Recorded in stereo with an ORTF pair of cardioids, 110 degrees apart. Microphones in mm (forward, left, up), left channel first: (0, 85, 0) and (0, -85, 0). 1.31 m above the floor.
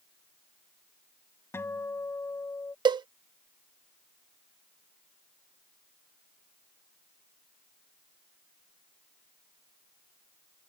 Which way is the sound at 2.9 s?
25° right.